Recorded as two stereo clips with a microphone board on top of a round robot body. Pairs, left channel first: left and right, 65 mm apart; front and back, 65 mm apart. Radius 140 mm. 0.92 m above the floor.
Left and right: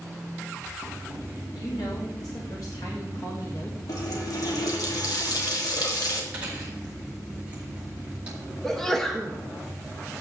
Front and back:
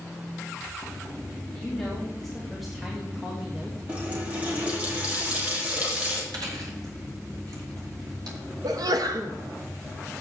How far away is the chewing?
About 2 m.